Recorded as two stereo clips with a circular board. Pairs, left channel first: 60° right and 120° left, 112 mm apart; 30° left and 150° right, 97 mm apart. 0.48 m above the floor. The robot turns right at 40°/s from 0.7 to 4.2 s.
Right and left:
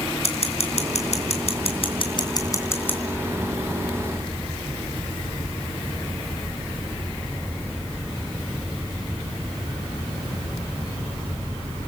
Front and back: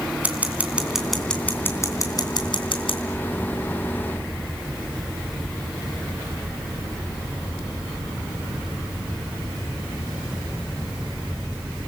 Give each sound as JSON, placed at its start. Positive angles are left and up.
{"t": 0.2, "sound": "scissors", "azimuth_deg": -75, "distance_m": 3.0}